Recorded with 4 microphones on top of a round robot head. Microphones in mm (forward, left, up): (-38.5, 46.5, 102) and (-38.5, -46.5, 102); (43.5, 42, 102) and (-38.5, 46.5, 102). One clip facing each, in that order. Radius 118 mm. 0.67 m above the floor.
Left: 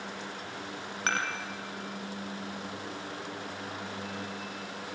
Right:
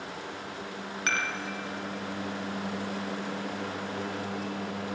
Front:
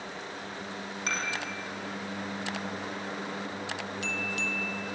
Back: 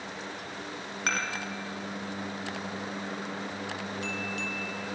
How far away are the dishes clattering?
About 3.5 m.